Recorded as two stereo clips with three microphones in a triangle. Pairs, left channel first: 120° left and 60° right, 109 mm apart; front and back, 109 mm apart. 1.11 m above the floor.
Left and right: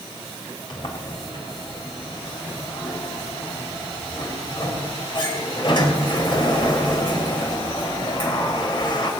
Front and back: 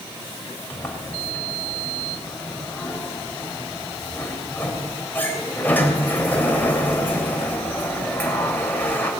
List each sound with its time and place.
0.7 s a sliding door: 75° left, 4.5 m